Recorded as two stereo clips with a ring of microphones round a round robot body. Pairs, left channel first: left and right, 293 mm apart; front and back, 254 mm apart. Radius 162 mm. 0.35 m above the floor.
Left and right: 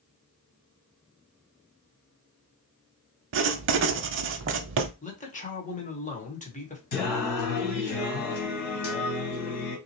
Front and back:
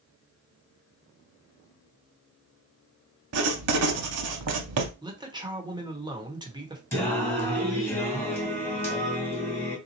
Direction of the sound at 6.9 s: 80° left.